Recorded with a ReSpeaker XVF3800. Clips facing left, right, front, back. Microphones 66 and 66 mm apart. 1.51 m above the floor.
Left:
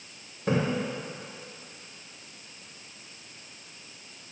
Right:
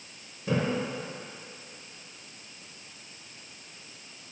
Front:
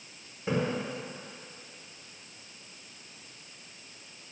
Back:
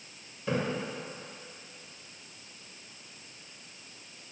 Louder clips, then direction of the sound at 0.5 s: Left 2 dB, even; 65° left.